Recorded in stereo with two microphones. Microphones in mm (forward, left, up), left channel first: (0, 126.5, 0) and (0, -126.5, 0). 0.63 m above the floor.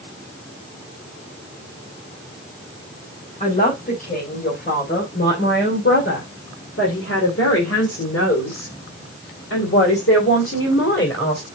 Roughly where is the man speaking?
Left.